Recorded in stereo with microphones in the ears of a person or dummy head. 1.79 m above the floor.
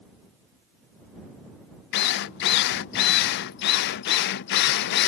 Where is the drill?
60° left (ahead or behind).